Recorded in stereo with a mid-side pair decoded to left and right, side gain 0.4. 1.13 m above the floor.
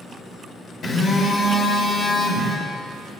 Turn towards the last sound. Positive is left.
turn(degrees=55)